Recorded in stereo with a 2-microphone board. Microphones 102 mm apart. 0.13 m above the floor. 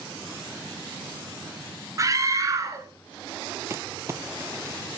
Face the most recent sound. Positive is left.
turn(degrees=-30)  # may be behind; listen again after turning